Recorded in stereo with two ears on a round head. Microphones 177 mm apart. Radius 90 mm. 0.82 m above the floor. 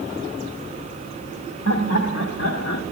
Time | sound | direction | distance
1.6 | laughter | 70° left (ahead or behind) | 1.8 m